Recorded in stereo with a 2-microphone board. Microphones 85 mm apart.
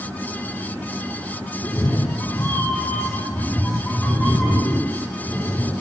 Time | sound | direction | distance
1.6 | a cat meowing | 40° left (ahead or behind) | 0.9 m